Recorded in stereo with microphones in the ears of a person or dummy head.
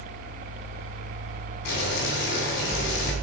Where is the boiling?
65° left (ahead or behind), 2.5 m.